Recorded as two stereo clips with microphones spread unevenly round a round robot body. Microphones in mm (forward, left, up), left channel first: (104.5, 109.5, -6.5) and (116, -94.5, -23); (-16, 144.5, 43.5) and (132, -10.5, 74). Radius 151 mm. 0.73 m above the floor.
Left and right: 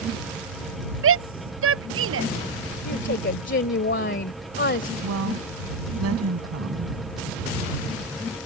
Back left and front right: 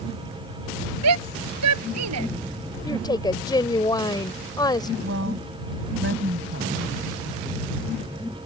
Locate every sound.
1.0 s a shout: 70° right
2.9 s a woman speaking: 60° left
5.0 s a woman speaking: 95° right